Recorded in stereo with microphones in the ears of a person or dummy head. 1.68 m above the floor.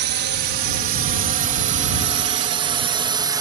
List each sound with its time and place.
0.0 s a drone: 55° right (ahead or behind); by 3.4 s 20° right (ahead or behind)